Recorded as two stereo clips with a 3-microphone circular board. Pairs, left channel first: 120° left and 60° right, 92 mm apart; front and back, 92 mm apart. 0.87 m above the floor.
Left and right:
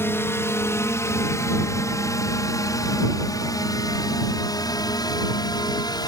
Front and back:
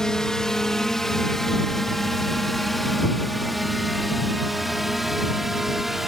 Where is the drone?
80° left; by 6.1 s 95° left.